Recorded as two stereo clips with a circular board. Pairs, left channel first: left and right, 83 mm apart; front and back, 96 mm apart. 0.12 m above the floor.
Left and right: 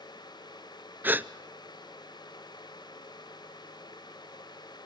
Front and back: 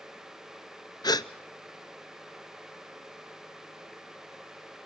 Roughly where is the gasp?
Ahead right.